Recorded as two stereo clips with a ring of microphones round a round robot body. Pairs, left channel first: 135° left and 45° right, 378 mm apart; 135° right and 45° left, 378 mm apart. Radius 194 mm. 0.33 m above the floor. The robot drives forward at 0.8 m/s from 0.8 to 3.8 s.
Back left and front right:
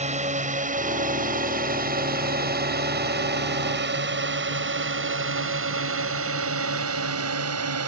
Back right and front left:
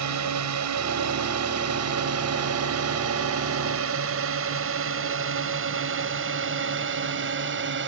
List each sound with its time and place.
0.0 s a drone: 20° left; by 7.9 s 10° right